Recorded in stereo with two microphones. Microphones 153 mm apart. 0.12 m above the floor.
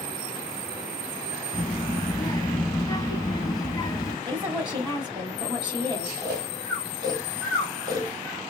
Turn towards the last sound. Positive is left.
turn(degrees=-30)  # may be behind; listen again after turning